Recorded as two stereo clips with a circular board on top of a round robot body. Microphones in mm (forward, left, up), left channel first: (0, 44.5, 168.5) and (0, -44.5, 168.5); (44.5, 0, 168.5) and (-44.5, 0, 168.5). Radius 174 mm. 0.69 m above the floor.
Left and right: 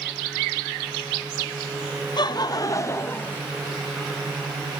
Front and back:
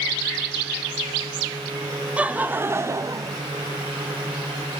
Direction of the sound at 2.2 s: 105° left.